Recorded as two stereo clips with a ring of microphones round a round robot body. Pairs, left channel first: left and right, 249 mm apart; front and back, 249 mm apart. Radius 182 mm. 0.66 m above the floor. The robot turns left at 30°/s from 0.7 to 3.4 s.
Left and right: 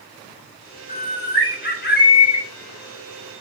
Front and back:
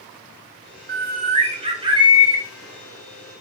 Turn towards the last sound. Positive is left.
turn(degrees=70)